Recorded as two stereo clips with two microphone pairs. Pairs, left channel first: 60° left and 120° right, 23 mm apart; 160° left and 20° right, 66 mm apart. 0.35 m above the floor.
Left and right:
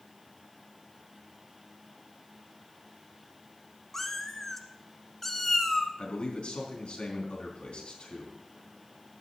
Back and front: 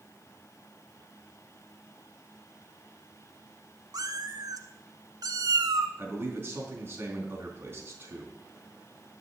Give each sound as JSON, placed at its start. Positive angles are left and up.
{"t": 3.9, "sound": "a cat meowing", "azimuth_deg": -20, "distance_m": 1.3}
{"t": 6.0, "sound": "a man speaking", "azimuth_deg": 35, "distance_m": 3.5}